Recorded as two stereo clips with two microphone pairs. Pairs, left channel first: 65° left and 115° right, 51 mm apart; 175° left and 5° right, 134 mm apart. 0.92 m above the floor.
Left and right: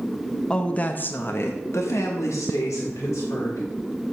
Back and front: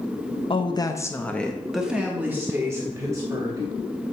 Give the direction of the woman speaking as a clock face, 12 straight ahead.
8 o'clock.